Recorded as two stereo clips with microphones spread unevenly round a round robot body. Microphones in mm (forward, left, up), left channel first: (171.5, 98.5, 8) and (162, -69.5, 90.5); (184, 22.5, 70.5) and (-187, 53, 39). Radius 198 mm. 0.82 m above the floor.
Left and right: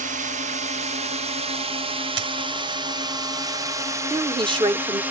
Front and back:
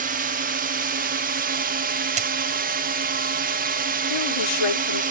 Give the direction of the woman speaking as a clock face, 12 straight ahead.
1 o'clock.